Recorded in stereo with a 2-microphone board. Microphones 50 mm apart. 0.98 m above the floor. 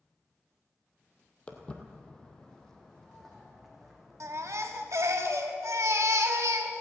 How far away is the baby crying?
About 1.1 m.